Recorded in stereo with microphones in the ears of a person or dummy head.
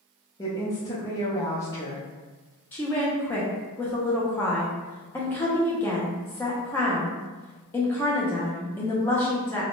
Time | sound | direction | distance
0.4 | a woman speaking | 15° left (ahead or behind) | 0.5 m
2.7 | a woman speaking | 10° left (ahead or behind) | 0.6 m